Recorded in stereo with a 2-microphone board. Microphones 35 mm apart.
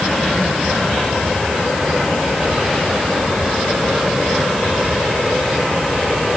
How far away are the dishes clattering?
No dishes clattering in this recording.